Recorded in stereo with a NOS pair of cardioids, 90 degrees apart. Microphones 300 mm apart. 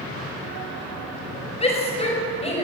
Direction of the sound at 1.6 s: 20° left.